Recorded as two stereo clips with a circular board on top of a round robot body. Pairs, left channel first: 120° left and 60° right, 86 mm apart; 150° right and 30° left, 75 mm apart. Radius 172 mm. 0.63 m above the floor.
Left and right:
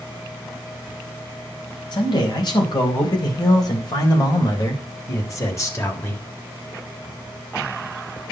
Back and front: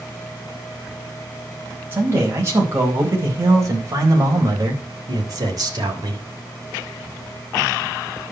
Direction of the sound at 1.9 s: 90° left.